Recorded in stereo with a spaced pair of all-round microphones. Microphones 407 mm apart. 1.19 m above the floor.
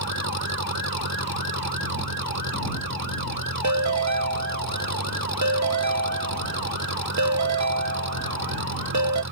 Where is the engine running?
40° right (ahead or behind).